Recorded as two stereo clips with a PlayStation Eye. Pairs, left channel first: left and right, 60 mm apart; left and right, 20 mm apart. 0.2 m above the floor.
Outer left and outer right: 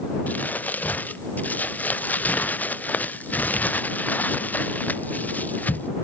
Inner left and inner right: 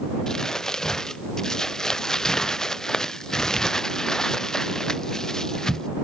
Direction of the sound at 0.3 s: 30° left (ahead or behind).